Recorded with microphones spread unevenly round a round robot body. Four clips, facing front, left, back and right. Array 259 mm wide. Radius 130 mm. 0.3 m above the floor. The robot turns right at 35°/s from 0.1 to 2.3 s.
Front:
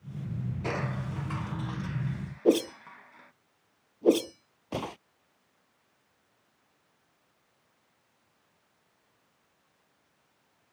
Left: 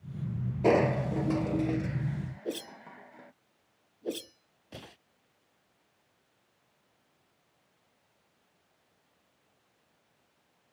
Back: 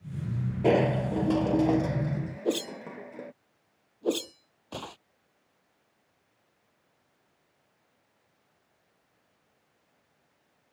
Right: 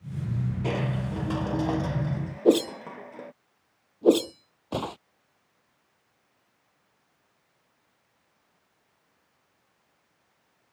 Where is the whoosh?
65° right.